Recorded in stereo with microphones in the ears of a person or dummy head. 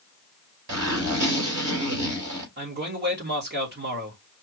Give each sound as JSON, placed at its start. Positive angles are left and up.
{"t": 0.7, "sound": "a zipper", "side_deg": -60, "distance_m": 3.0}
{"t": 2.6, "sound": "a man speaking", "side_deg": -50, "distance_m": 2.0}